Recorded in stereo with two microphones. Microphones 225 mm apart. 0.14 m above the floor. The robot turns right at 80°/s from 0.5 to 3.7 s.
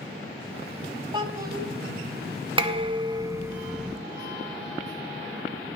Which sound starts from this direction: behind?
A child speaking, at 1.1 s.